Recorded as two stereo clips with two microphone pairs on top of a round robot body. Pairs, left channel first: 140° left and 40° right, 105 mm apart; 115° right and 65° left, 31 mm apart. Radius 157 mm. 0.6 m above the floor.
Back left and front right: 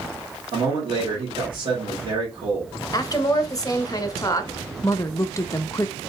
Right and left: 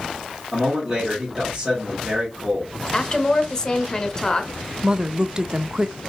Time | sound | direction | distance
0.5 | a man speaking | 15° right | 2.5 m
2.9 | a woman speaking | 175° right | 1.0 m
4.8 | a woman speaking | 110° left | 0.6 m